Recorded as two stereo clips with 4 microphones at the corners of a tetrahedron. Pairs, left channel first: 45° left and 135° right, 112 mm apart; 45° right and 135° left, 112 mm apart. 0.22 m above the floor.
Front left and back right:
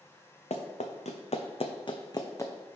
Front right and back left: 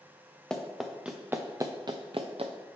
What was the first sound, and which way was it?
Running footsteps, 40° left.